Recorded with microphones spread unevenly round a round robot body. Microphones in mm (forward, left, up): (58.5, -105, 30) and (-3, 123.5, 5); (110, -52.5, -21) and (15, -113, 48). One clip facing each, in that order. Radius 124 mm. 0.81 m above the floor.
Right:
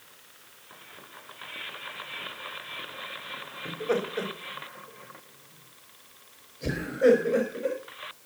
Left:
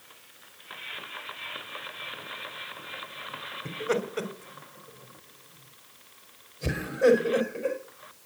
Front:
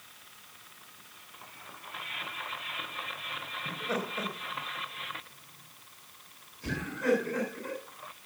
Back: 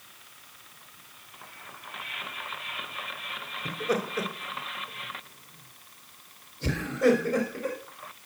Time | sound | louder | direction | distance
3.6 | laughter | right 1 dB, back 6 dB | 175° left | 3 m